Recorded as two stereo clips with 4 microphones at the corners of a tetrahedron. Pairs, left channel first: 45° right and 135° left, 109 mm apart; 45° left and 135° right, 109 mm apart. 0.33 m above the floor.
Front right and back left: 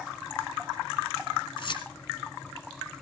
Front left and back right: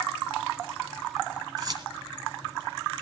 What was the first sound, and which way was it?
Keys jangling, 85° right.